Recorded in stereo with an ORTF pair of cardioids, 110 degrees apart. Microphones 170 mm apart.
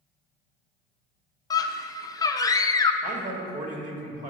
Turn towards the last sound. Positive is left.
turn(degrees=-45)